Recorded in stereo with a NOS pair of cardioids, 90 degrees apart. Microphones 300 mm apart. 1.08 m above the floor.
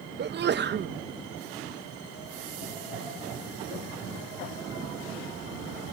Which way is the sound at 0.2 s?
35° right.